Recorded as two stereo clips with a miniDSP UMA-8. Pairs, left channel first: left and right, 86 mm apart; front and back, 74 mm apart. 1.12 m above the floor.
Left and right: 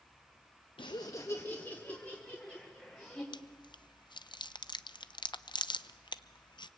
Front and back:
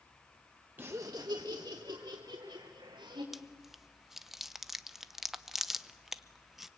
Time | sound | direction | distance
0.8 | laughter | 115° left | 0.7 m
3.3 | chewing | 95° left | 0.7 m